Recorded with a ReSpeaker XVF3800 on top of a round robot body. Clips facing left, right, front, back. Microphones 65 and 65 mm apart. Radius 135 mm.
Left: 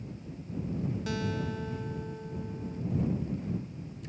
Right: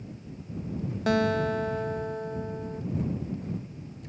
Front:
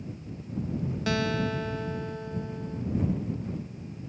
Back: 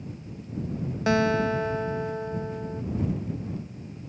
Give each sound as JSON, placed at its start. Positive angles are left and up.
{"t": 1.1, "sound": "a guitar", "azimuth_deg": -120}